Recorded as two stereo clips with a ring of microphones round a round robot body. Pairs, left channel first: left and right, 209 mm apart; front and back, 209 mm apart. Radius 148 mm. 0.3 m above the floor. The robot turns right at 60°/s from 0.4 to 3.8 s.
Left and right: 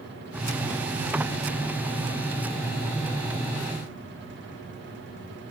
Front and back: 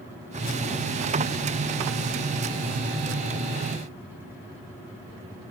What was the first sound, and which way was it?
Only background noise.